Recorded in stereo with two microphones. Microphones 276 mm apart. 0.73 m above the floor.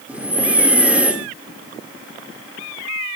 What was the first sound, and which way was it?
Breathing, 5° right (ahead or behind).